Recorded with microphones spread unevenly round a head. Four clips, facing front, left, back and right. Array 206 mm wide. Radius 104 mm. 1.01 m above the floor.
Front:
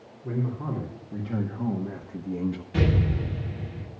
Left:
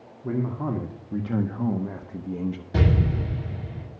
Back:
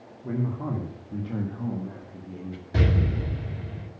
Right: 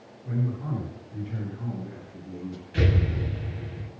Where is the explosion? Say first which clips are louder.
Left 2 dB, back 1 dB; 110° left, 8.5 m.